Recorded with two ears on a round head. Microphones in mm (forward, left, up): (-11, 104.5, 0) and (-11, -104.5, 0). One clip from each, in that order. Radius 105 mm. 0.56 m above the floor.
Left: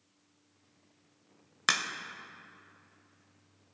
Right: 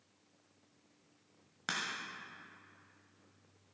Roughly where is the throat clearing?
I don't hear throat clearing.